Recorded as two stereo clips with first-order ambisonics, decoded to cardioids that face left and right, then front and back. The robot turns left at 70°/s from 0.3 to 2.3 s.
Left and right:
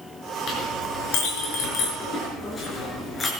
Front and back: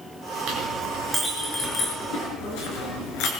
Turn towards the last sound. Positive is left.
turn(degrees=20)